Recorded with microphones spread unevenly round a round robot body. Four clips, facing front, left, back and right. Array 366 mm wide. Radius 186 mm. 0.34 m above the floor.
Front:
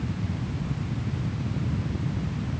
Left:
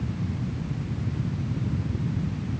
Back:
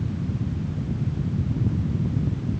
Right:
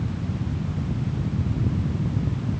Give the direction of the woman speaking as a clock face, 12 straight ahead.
I don't hear a woman speaking.